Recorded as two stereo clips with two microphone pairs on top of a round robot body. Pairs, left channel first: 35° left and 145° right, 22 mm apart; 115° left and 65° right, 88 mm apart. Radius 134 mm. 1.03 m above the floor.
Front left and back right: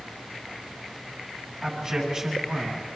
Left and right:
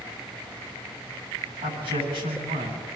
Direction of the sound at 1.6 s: 85° right.